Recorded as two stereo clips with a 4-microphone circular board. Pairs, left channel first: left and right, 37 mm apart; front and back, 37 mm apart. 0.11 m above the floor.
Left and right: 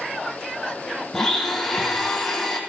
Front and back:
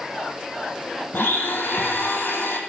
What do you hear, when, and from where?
1.1 s a blender: 5° left, 2.5 m